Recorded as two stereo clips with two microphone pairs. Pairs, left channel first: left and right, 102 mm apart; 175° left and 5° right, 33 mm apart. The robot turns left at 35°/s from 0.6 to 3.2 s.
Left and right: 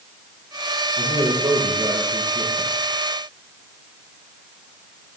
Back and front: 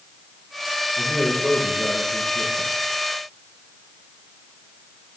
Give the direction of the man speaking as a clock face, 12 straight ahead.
4 o'clock.